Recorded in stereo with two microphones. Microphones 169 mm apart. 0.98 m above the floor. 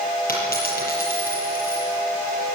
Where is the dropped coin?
65° left (ahead or behind), 7 m.